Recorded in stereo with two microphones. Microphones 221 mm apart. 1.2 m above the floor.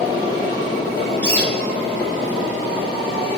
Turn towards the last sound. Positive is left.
turn(degrees=5)  # may be behind; listen again after turning